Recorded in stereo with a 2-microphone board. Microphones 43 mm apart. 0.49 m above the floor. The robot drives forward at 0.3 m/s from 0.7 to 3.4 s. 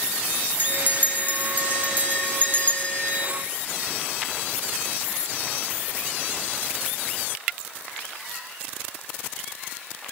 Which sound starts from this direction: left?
A bell, at 0.6 s.